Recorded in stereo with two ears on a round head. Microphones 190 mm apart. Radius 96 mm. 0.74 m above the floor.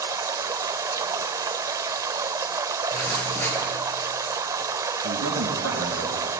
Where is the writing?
5° left (ahead or behind), 7 m.